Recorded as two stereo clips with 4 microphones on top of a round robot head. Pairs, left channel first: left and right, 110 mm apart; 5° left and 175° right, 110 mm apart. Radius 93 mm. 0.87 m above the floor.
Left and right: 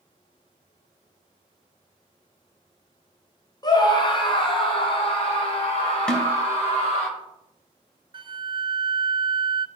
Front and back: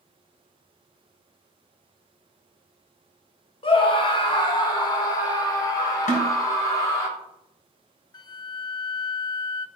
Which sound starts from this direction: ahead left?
A scream, at 3.6 s.